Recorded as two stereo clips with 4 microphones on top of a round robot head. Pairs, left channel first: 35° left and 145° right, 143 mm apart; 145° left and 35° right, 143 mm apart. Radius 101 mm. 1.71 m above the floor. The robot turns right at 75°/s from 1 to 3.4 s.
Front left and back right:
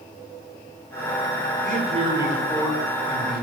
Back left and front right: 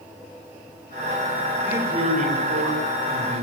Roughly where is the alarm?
No alarm in this recording.